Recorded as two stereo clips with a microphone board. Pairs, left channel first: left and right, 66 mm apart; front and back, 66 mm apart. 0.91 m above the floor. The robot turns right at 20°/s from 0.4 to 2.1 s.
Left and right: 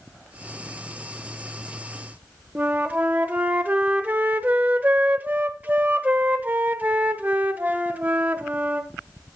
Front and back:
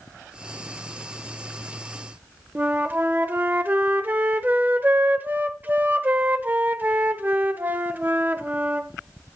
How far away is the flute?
About 0.7 m.